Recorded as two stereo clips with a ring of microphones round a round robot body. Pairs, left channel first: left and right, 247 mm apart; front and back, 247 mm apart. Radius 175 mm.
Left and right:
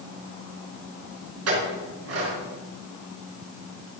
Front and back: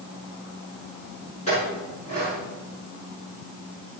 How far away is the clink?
About 5.5 m.